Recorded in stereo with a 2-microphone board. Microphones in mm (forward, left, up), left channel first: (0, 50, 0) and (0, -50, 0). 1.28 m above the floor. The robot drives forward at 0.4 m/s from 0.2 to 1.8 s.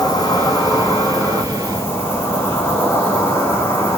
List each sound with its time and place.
0.0 s an insect: 40° left (ahead or behind), 0.7 m; by 4.0 s 30° left (ahead or behind), 1.0 m